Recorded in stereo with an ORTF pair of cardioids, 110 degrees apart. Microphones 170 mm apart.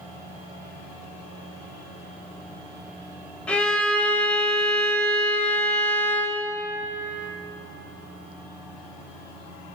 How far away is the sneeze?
No sneeze in this recording.